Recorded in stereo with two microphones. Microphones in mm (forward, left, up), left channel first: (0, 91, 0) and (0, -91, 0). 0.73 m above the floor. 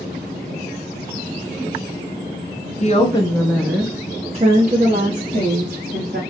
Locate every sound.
2.8 s a woman speaking: 40° left (ahead or behind), 0.8 m; by 6.2 s 65° right (ahead or behind), 1.7 m